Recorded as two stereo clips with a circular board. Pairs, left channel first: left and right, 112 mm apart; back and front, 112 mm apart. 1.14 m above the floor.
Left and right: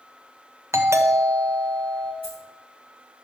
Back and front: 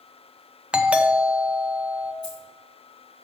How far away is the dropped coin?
About 3.5 m.